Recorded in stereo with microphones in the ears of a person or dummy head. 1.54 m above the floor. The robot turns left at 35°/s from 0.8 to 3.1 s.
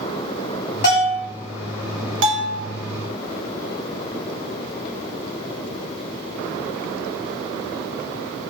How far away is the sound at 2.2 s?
About 0.7 m.